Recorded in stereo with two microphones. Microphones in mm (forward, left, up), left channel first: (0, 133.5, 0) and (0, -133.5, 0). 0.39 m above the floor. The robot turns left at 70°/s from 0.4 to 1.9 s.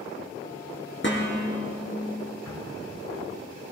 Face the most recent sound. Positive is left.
turn(degrees=75)  # may be behind; listen again after turning